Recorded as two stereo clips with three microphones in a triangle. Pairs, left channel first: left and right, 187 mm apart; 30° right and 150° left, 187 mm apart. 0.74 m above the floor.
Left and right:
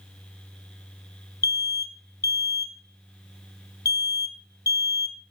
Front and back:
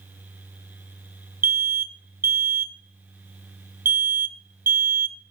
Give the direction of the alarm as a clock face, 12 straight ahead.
8 o'clock.